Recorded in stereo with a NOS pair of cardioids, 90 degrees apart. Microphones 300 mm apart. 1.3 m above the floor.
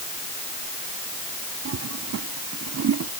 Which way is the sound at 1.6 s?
55° right.